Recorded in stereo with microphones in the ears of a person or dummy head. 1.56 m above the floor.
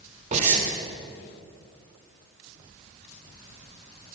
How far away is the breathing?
About 4.5 m.